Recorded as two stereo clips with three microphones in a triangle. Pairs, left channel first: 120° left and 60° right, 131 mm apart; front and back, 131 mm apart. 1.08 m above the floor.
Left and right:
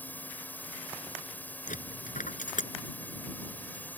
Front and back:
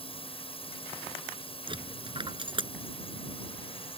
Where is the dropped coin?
130° left.